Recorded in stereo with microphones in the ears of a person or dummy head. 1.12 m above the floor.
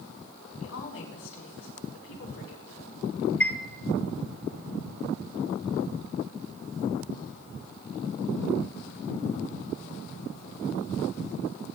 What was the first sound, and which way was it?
A woman speaking, 85° left.